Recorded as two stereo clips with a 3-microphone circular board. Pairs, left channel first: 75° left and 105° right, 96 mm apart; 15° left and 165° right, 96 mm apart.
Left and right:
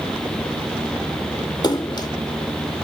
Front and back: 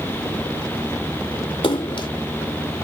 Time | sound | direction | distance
1.6 | a splash | 35° left | ?